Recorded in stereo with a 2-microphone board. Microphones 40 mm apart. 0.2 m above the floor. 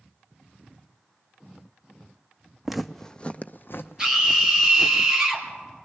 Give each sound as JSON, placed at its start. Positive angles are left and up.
{"t": 2.6, "sound": "footsteps", "side_deg": -5, "distance_m": 0.6}
{"t": 4.0, "sound": "a scream", "side_deg": -15, "distance_m": 4.0}